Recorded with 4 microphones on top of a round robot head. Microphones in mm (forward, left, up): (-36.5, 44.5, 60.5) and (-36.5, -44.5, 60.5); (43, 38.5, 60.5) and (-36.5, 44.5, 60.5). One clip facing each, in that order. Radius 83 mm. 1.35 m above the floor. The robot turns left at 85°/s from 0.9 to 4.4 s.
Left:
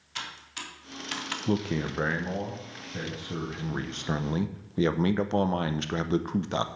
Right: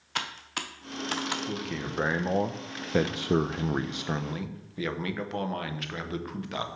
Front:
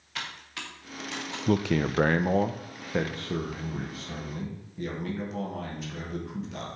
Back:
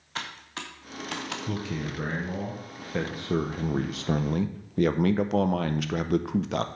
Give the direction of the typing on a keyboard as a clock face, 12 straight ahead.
4 o'clock.